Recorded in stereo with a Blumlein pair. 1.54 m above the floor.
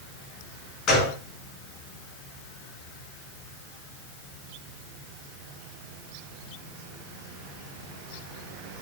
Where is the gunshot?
25° left, 5.5 m.